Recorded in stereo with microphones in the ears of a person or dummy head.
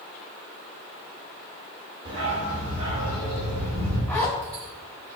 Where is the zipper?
10° left (ahead or behind), 1.4 m.